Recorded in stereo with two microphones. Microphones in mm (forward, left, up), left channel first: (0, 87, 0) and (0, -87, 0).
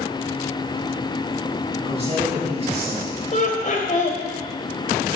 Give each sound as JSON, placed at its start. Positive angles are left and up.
{"t": 1.9, "sound": "a man speaking", "side_deg": -40, "distance_m": 4.0}
{"t": 3.3, "sound": "laughter", "side_deg": 45, "distance_m": 2.0}